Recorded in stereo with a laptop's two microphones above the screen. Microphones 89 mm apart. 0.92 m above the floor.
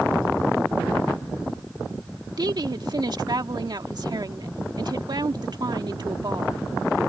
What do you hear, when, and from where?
2.4 s a woman speaking: 50° right (ahead or behind)